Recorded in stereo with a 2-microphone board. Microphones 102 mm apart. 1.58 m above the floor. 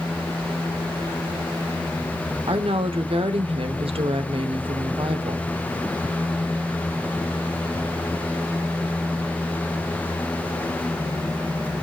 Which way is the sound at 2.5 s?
75° right (ahead or behind).